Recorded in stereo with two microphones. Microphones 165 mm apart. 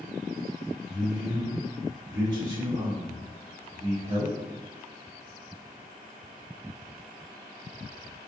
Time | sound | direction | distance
0.9 | a man speaking | 5° right (ahead or behind) | 1.1 m